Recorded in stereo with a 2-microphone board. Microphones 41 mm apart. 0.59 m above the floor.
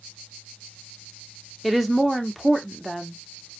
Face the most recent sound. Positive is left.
turn(degrees=-5)  # may be behind; listen again after turning